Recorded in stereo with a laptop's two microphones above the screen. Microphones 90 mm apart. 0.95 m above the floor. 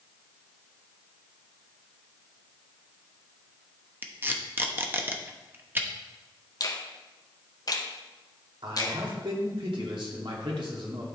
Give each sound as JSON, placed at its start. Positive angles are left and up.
{"t": 4.0, "sound": "tape being pulled", "side_deg": -25, "distance_m": 0.9}
{"t": 6.6, "sound": "a finger snap", "side_deg": 45, "distance_m": 0.7}
{"t": 8.6, "sound": "a man speaking", "side_deg": -70, "distance_m": 2.0}